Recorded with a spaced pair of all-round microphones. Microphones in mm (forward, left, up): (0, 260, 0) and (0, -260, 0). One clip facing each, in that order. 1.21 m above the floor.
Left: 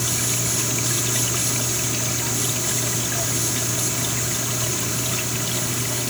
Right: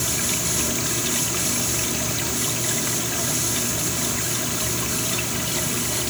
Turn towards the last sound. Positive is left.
No sound to turn to.